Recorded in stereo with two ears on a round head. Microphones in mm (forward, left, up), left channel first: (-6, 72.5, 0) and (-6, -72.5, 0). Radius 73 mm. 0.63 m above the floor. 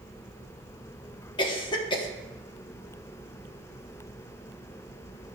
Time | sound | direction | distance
1.4 | a cough | 30° left (ahead or behind) | 1.0 m